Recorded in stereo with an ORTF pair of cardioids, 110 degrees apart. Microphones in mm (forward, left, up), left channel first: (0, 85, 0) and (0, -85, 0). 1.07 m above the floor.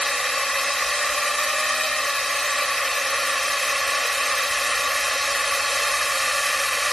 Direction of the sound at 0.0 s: Straight ahead.